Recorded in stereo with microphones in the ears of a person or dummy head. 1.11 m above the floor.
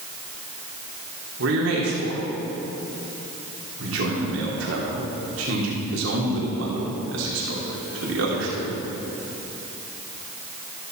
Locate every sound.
1.4 s a man speaking: 65° right (ahead or behind), 2.5 m